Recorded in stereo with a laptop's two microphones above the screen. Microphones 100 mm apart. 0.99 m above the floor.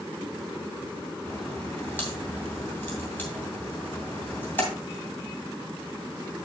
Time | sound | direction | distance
1.2 | a crack | 20° left (ahead or behind) | 2.5 m